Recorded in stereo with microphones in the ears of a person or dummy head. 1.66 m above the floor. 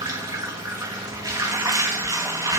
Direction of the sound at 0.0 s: 15° right (ahead or behind).